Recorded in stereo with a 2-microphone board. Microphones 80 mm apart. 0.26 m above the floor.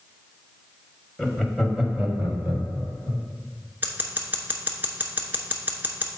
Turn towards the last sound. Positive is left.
turn(degrees=-25)  # may be behind; listen again after turning